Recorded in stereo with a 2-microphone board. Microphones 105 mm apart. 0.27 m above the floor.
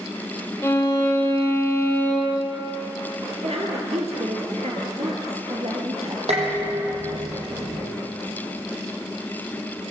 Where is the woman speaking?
75° right (ahead or behind), 6 m.